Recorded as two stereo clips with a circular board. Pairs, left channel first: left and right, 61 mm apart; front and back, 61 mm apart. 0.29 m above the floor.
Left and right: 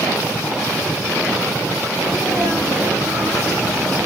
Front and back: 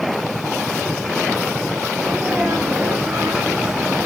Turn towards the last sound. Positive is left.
turn(degrees=-120)